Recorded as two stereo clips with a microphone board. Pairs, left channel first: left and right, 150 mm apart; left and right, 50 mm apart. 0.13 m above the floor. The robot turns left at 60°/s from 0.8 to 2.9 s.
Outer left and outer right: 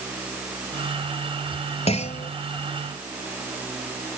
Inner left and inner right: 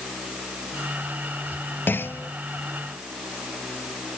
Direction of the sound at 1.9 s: 40° left (ahead or behind).